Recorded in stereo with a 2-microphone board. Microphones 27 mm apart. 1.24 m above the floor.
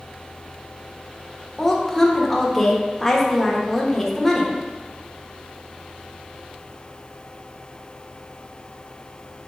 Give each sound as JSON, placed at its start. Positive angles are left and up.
{"t": 1.6, "sound": "a woman speaking", "side_deg": 10, "distance_m": 0.8}